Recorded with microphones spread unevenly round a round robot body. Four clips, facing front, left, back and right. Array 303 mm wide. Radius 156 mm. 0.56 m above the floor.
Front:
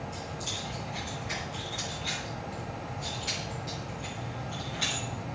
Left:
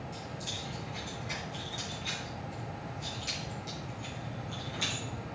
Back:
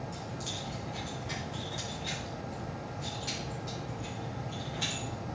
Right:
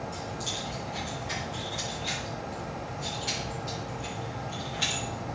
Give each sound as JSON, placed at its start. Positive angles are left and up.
{"t": 0.1, "sound": "keys jangling", "azimuth_deg": 180, "distance_m": 3.5}